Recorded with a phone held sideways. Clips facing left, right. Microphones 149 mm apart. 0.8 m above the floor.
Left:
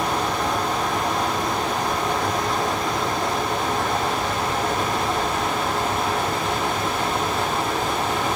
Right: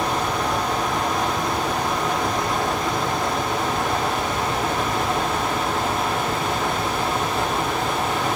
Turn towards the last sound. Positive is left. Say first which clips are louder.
# even
turn(degrees=0)  # may be behind; listen again after turning